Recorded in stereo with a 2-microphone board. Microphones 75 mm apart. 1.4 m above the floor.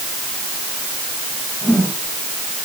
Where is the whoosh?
Centre (ahead or behind), 8 m.